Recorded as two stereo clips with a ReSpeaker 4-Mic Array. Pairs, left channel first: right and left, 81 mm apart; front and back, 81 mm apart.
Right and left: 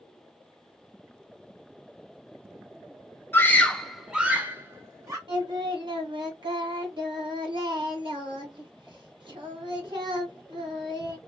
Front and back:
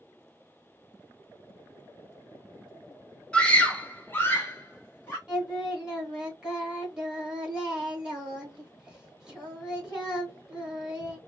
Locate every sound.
3.3 s a scream: 65° right, 0.9 m; by 5.2 s 55° left, 1.3 m
5.3 s singing: 100° left, 2 m